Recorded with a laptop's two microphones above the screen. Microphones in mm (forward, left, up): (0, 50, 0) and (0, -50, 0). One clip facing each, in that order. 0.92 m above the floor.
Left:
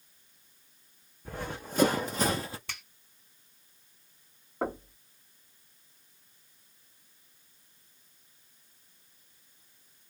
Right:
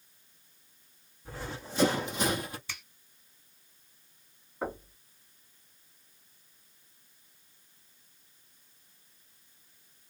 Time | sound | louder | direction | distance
1.2 | running footsteps | left 2 dB | 55° left (ahead or behind) | 2.5 m
2.7 | a finger snap | left 1 dB | 70° left (ahead or behind) | 2.5 m
4.6 | knocking | left 3 dB | 60° left (ahead or behind) | 1.8 m